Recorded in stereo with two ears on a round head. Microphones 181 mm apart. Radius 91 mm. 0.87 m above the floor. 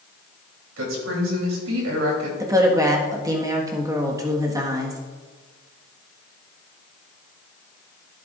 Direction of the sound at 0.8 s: 70° right (ahead or behind).